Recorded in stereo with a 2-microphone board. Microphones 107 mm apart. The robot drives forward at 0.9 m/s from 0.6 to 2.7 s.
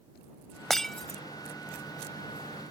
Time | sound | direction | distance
0.7 | breaking glass | 5° left (ahead or behind) | ?